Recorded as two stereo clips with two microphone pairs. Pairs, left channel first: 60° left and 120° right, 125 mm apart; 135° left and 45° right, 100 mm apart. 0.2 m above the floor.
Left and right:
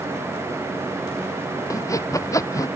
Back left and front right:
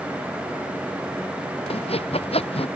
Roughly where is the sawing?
Behind left.